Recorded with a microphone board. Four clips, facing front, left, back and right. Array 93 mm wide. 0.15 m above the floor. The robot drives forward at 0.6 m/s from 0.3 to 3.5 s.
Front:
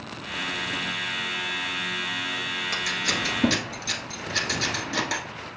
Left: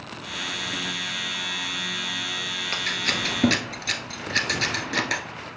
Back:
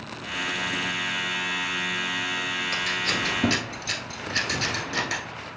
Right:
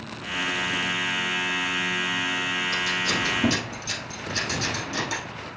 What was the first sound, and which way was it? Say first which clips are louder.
Scissors: left 2 dB, even; 70° left.